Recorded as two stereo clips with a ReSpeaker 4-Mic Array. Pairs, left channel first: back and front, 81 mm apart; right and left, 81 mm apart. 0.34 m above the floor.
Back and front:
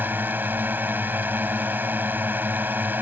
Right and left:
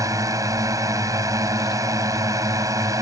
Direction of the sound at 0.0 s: 60° left.